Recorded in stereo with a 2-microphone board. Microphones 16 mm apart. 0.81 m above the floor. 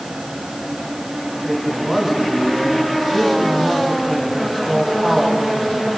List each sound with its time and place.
1.4 s a man speaking: 25° right (ahead or behind), 6 m